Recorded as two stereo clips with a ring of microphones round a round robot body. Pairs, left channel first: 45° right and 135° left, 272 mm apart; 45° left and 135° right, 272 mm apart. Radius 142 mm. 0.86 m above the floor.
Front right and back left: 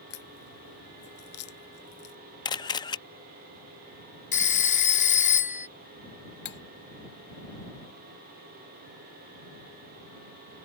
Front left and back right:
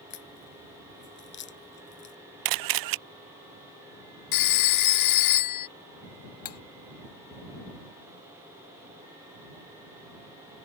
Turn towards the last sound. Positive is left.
turn(degrees=5)